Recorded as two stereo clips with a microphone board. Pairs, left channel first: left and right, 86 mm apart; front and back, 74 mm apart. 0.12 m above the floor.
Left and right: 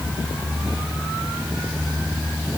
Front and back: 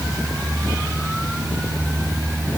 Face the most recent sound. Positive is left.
No sound to turn to.